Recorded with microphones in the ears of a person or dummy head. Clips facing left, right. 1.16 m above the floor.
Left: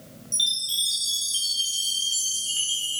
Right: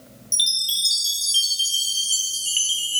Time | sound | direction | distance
0.3 | a chime | 30° right (ahead or behind) | 0.6 m